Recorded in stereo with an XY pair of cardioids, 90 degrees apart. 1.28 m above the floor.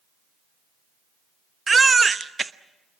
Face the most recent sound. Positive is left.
turn(degrees=-30)